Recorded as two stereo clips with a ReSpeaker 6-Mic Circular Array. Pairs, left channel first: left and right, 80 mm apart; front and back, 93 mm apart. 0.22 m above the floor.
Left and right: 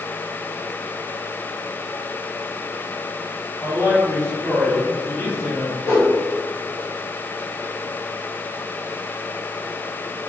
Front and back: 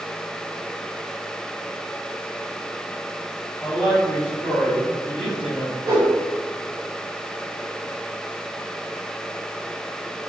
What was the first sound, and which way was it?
A woman speaking, 100° left.